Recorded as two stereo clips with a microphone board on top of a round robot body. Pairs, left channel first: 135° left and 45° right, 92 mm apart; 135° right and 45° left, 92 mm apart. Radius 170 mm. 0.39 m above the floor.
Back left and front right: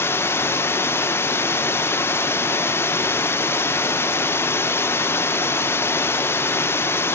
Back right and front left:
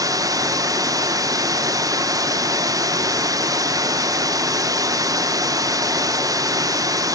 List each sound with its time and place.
0.0 s running water: 80° left, 0.9 m